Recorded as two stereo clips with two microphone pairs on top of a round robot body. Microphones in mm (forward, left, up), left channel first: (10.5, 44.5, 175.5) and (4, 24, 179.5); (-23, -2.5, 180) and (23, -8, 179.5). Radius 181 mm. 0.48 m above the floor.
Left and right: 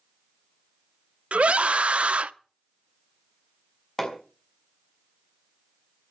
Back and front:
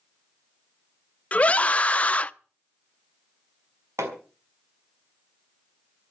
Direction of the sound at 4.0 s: 5° right.